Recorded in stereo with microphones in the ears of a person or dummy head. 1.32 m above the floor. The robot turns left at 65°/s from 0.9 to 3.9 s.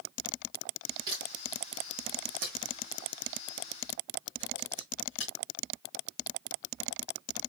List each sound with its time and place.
1.1 s a camera shutter: 25° right (ahead or behind), 2 m; by 5.3 s 30° left (ahead or behind), 2 m